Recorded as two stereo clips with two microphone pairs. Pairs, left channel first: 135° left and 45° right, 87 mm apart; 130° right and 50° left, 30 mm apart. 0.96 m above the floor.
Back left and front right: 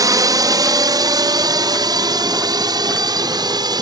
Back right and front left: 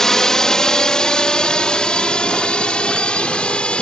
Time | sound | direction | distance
0.0 | a drone | 60° right | ?